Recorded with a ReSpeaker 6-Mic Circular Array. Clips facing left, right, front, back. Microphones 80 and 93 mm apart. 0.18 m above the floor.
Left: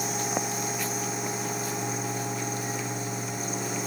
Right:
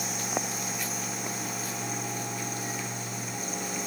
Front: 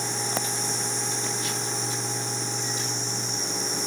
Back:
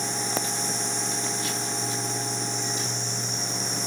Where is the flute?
No flute in this recording.